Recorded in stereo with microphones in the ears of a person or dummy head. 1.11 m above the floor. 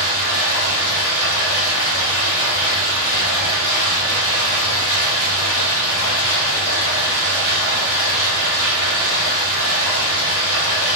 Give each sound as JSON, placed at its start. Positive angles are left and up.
{"t": 0.0, "sound": "running water", "side_deg": 30, "distance_m": 1.3}